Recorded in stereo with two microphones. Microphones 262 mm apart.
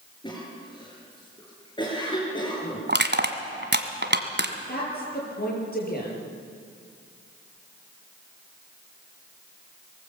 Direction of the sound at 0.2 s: 15° left (ahead or behind).